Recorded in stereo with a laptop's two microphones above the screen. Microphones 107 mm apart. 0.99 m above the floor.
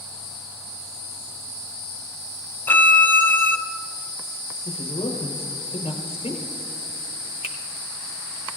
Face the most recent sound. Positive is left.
turn(degrees=75)  # may be behind; listen again after turning